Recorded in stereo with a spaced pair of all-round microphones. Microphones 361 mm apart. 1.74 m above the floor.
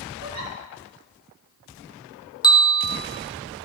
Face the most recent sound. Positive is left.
turn(degrees=10)  # may be behind; listen again after turning